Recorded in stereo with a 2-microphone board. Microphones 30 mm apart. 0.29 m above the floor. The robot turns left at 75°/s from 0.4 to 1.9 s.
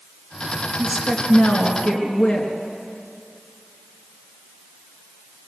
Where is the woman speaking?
Straight behind, 4 m; by 2.5 s 100° left, 4 m.